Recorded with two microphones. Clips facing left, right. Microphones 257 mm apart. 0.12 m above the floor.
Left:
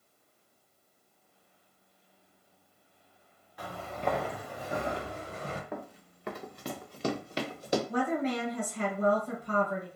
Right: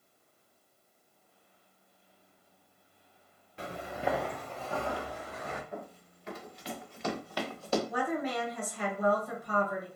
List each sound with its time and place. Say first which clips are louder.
3.6 s footsteps: even; 30° right (ahead or behind), 0.7 m; by 5.6 s 35° left (ahead or behind), 1.2 m
5.7 s running footsteps: left 2 dB; 85° left, 1.0 m; by 7.8 s 15° left (ahead or behind), 1.2 m
7.9 s a woman speaking: left 3 dB; 30° left (ahead or behind), 1.5 m